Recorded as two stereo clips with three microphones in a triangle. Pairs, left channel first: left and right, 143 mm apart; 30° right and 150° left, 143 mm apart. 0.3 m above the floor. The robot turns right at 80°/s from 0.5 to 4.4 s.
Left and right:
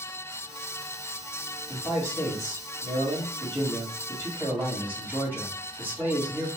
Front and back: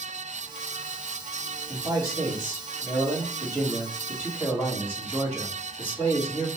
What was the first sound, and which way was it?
A man speaking, 125° left.